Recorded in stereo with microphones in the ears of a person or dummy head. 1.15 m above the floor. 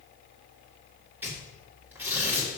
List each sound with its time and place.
1.2 s tearing paper: 10° right (ahead or behind), 1.7 m